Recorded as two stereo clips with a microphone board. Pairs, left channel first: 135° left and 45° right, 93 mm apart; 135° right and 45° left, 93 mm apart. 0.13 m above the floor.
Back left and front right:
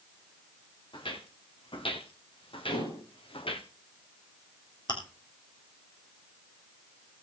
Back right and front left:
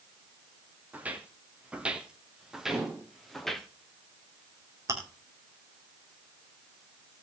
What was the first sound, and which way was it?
Footsteps, 120° left.